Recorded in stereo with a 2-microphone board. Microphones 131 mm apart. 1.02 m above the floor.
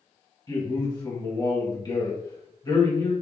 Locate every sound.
0.5 s a man speaking: 30° left (ahead or behind), 1.2 m